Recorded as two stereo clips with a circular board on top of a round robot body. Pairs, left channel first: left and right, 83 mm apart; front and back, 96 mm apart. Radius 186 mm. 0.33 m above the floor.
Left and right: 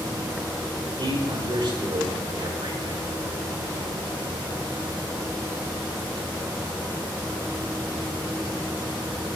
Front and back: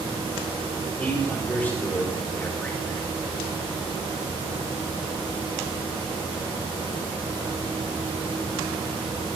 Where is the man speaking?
70° right, 5 m.